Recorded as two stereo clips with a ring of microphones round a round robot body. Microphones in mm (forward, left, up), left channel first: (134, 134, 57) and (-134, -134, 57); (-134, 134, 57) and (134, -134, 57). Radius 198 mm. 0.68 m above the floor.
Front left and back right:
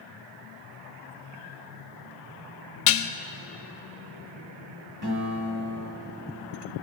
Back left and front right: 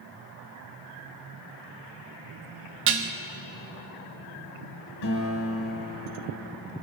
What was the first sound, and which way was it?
Dishes clattering, 10° left.